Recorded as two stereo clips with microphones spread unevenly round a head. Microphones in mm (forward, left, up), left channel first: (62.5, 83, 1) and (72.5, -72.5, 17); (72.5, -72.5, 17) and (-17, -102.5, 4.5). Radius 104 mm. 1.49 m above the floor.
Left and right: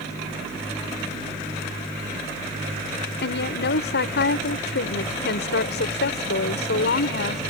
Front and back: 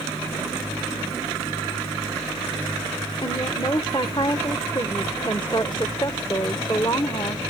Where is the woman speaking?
90° left.